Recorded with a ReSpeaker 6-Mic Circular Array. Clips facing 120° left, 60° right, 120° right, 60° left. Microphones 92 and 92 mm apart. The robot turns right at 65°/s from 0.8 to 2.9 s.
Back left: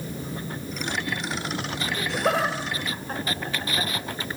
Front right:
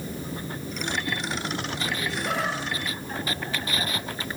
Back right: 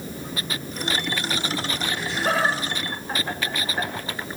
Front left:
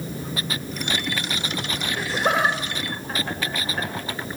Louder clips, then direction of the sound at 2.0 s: Back left 7 dB, front left 2 dB; 100° left.